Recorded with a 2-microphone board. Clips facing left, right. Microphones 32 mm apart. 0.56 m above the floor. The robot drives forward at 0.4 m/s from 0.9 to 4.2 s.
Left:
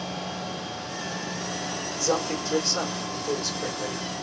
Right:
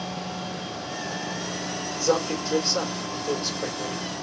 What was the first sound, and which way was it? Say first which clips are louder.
A man speaking: right 3 dB; 20° right (ahead or behind).